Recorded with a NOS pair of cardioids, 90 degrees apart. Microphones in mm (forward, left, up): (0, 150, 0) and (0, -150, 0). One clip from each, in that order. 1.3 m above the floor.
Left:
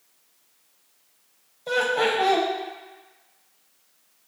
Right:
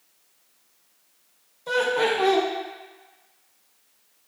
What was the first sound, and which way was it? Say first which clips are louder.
Laughter: even; straight ahead.